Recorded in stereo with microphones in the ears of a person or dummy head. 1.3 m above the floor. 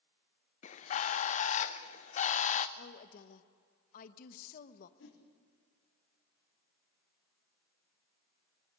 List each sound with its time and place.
0.6 s a bird: 40° left (ahead or behind), 0.7 m
2.8 s a woman speaking: 50° left (ahead or behind), 1.1 m
5.0 s a whoosh: 80° left, 4 m